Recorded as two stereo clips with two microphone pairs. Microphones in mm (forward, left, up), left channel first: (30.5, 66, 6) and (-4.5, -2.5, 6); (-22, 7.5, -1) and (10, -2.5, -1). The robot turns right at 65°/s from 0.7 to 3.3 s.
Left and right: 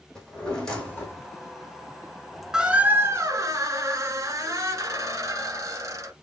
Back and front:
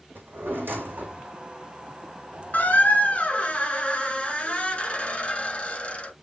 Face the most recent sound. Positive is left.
turn(degrees=-155)